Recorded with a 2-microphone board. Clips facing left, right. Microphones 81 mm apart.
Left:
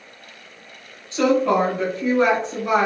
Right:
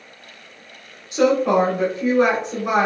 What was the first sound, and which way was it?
A woman speaking, 15° right (ahead or behind).